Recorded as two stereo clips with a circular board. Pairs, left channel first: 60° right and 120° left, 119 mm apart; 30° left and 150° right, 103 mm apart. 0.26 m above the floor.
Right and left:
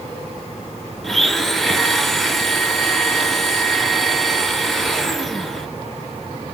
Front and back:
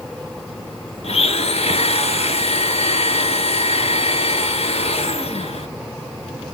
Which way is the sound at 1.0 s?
30° left.